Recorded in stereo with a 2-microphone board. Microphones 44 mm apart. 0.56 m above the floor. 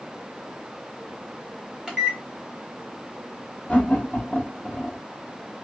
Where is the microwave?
15° right (ahead or behind), 1.2 m.